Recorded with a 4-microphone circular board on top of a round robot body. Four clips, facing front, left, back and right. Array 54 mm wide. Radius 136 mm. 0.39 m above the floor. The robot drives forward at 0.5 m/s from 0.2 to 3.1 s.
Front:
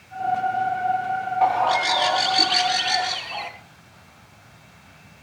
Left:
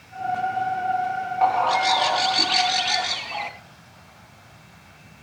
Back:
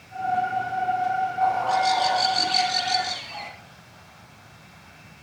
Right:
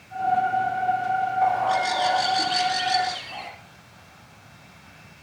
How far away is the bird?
About 3.5 m.